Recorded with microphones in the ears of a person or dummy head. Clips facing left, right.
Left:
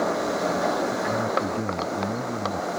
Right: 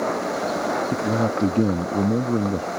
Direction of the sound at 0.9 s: 50° right (ahead or behind).